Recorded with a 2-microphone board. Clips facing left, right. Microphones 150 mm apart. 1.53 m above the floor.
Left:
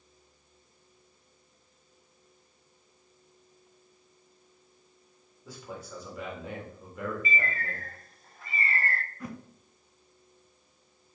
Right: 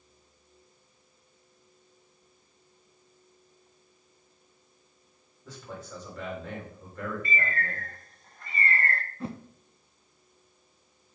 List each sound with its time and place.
5.5 s a man speaking: 10° left (ahead or behind), 3 m
7.2 s a bird: 5° left (ahead or behind), 0.7 m
9.2 s a whoosh: 30° right (ahead or behind), 0.5 m